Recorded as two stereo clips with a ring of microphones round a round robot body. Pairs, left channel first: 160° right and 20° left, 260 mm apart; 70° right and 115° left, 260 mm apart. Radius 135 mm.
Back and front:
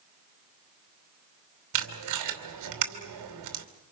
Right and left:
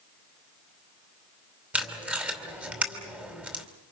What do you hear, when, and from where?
1.7 s tape being pulled: 25° left, 2.5 m